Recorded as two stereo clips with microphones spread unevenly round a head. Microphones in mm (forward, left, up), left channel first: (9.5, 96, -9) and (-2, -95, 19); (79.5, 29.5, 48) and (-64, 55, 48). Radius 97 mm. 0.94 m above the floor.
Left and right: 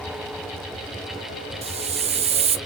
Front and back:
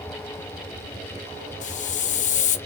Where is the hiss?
35° right, 0.5 m.